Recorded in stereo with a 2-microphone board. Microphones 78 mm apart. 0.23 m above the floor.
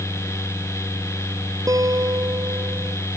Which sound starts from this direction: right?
A guitar, at 1.7 s.